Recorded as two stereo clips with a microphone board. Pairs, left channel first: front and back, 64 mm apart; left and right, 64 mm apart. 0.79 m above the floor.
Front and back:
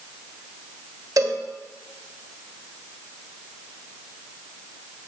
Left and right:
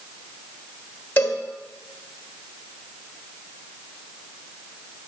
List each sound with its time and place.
1.2 s a cowbell: 150° left, 1.3 m